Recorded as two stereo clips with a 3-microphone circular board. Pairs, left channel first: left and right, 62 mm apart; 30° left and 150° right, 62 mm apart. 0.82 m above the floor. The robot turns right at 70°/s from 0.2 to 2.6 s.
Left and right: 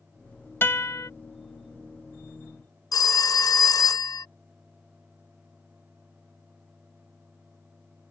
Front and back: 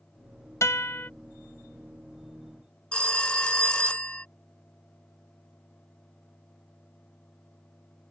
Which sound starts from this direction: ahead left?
A guitar, at 0.6 s.